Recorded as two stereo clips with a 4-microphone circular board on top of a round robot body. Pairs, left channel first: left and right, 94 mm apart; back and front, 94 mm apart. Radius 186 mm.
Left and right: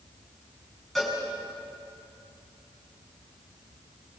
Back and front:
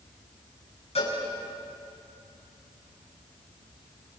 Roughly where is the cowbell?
Behind.